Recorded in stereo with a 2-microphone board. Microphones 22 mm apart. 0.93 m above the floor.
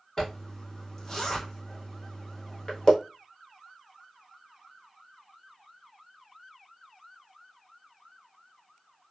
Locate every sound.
0.2 s a zipper: 25° left (ahead or behind), 0.9 m